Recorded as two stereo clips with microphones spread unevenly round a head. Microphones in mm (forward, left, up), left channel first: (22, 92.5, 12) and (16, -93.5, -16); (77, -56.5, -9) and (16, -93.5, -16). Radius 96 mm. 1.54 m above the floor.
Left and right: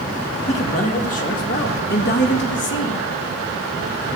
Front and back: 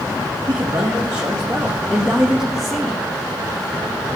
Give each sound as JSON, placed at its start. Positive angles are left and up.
{"t": 0.5, "sound": "a man speaking", "azimuth_deg": 145, "distance_m": 3.0}